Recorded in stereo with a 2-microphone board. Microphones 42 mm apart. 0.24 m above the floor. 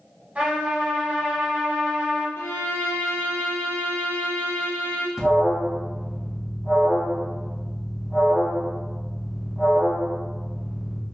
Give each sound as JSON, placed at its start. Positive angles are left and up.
{"t": 0.3, "sound": "a trumpet", "side_deg": -30, "distance_m": 1.4}
{"t": 2.4, "sound": "a violin", "side_deg": 75, "distance_m": 1.0}
{"t": 5.2, "sound": "an alarm", "side_deg": -5, "distance_m": 1.4}